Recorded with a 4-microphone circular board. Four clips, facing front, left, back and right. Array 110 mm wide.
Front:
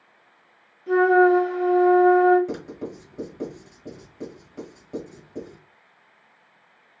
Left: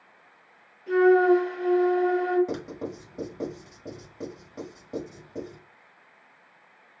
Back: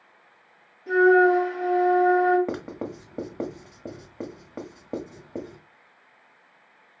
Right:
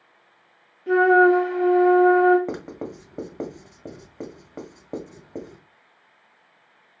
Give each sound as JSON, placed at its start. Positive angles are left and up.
{"t": 0.9, "sound": "a flute", "azimuth_deg": -115, "distance_m": 2.5}
{"t": 2.5, "sound": "writing", "azimuth_deg": -140, "distance_m": 1.4}